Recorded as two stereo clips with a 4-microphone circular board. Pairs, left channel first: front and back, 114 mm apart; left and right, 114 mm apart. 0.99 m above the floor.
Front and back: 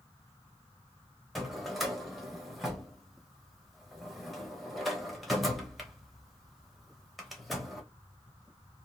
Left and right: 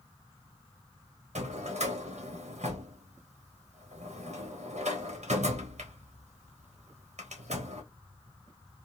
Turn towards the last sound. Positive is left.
turn(degrees=-90)